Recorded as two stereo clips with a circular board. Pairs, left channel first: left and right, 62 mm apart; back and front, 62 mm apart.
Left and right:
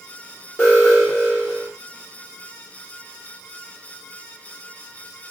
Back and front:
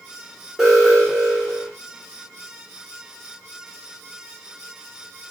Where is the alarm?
75° left, 1.4 m.